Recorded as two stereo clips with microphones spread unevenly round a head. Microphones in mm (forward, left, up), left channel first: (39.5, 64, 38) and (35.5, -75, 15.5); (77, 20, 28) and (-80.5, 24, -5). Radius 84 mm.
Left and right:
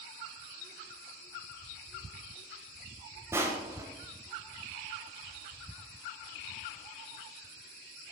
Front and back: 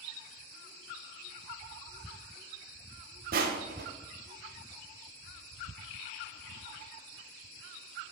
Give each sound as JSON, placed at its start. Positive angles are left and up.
{"t": 3.3, "sound": "crushing", "azimuth_deg": -165, "distance_m": 1.3}